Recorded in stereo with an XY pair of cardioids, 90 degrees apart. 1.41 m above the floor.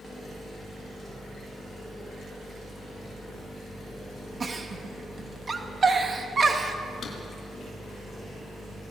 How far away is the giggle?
About 2 m.